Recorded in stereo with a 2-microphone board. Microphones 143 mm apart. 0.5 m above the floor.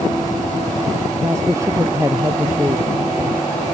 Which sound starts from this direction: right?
A woman speaking, at 1.2 s.